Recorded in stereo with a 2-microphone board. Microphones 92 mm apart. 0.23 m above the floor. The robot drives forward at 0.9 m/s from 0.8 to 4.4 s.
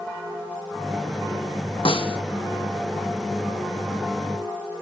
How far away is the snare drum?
About 1.6 m.